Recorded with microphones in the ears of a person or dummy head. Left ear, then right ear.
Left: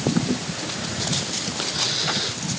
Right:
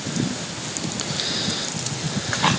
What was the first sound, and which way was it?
Only background noise.